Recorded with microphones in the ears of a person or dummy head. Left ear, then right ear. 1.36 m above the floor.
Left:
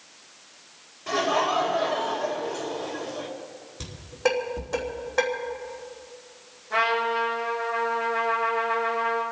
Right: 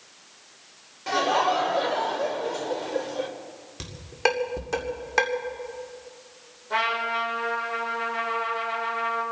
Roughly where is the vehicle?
No vehicle in this recording.